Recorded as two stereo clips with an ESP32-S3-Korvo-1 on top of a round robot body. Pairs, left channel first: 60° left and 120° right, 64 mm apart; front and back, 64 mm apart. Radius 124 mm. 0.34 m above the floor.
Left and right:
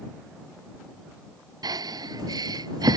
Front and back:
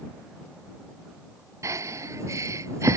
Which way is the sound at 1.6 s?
140° right.